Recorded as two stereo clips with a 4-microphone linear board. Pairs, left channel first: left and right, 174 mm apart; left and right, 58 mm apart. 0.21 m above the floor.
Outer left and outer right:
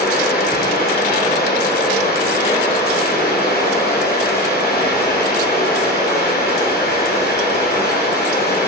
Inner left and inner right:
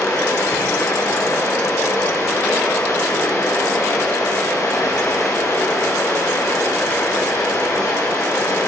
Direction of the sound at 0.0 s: 65° left (ahead or behind).